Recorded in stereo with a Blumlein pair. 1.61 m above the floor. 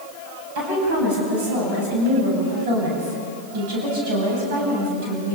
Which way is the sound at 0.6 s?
50° right.